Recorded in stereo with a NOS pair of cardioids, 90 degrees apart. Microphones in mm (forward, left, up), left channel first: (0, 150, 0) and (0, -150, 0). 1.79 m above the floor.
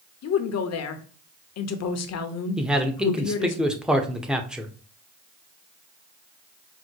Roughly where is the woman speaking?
Ahead left.